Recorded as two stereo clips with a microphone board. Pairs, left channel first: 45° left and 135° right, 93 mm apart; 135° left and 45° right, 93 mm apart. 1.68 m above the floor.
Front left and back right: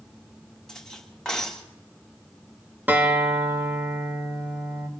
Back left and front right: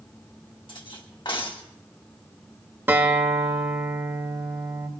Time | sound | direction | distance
0.7 | cutlery clinking | 130° left | 1.6 m
2.9 | a guitar | 85° right | 1.5 m